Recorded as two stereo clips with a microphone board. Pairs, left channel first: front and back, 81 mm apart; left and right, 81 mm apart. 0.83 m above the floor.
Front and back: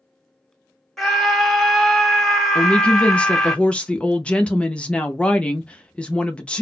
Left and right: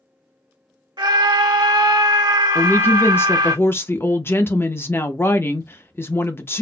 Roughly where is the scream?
Right.